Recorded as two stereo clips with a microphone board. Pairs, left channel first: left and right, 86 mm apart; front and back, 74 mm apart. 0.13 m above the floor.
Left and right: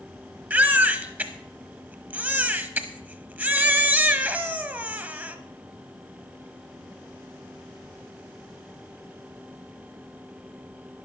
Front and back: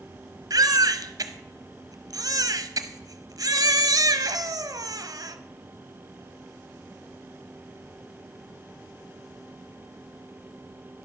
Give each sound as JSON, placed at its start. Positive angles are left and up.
{"t": 0.5, "sound": "a baby crying", "azimuth_deg": -155, "distance_m": 0.8}